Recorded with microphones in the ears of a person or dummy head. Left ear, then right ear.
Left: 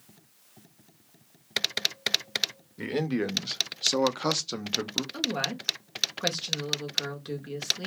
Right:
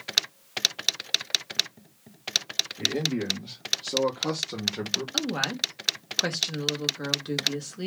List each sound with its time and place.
2.8 s a man speaking: 40° left (ahead or behind), 1.0 m; by 5.0 s 15° left (ahead or behind), 0.6 m
5.1 s a woman speaking: centre (ahead or behind), 1.0 m